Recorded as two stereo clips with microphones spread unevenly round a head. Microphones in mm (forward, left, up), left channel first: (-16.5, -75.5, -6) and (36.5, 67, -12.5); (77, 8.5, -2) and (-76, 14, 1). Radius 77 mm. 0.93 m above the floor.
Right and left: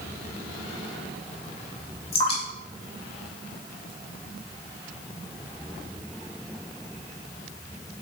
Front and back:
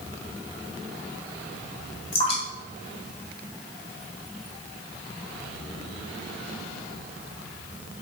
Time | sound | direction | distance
2.1 | dripping | 55° right | 1.9 m